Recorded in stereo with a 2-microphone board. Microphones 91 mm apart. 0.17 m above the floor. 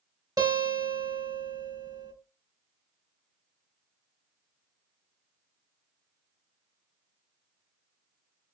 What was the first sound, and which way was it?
A guitar, 45° right (ahead or behind).